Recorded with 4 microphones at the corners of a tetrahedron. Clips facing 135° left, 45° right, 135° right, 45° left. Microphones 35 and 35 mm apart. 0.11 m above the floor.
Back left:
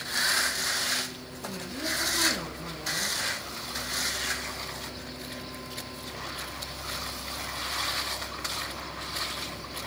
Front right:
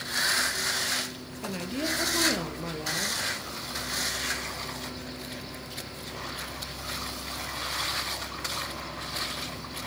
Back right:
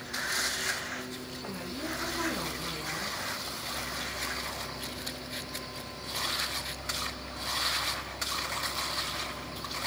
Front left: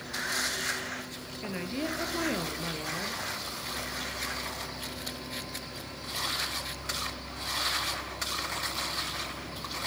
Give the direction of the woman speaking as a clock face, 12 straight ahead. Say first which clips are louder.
Front right 3 dB, front left 5 dB; 12 o'clock.